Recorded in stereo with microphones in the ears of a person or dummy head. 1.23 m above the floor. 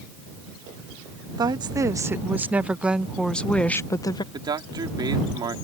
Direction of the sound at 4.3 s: 25° right (ahead or behind).